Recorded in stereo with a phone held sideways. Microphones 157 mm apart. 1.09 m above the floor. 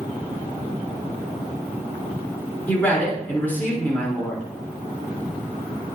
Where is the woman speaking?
10° left (ahead or behind), 3 m.